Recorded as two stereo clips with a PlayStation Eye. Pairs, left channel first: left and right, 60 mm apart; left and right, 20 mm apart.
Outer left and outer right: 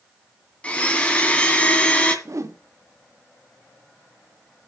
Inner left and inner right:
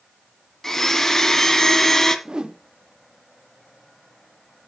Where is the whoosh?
60° right (ahead or behind), 0.9 m.